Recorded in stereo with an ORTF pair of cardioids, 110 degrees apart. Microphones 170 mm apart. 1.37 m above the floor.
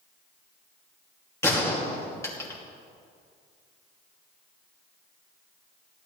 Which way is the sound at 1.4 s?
15° left.